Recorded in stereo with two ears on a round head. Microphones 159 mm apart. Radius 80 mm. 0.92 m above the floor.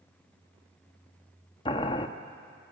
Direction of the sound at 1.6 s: 30° left (ahead or behind).